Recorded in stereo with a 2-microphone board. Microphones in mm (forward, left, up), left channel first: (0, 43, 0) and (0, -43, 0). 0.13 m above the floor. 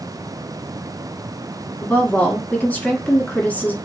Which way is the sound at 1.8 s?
20° left (ahead or behind).